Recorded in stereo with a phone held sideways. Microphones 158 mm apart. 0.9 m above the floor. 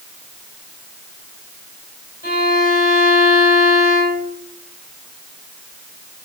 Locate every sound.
2.2 s a violin: 80° left, 3.5 m